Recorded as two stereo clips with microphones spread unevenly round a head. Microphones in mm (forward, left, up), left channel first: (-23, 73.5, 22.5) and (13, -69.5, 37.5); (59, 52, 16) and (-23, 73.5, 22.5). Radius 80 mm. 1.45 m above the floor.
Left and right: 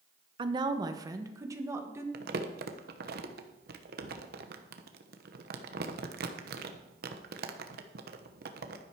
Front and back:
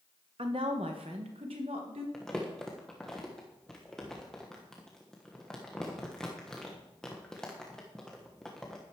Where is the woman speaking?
135° right, 1.0 m; by 2.0 s 150° right, 1.9 m.